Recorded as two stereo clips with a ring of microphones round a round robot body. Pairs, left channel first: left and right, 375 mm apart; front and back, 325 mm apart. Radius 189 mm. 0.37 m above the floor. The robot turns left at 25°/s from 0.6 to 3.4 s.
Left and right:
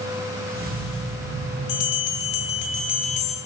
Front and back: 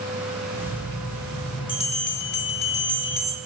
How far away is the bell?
About 2.0 m.